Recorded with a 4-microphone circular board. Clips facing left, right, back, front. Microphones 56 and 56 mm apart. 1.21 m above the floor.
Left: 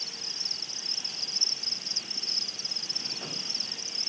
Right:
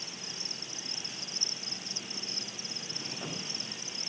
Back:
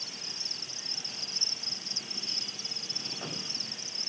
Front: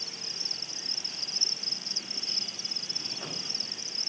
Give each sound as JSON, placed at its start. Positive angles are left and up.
{"t": 0.0, "sound": "an insect", "azimuth_deg": -25}